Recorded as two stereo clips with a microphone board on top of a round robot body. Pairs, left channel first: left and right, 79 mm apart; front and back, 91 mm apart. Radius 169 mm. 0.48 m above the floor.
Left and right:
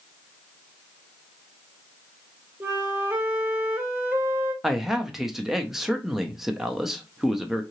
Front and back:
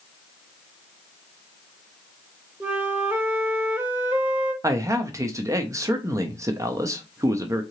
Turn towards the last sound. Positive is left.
turn(degrees=-170)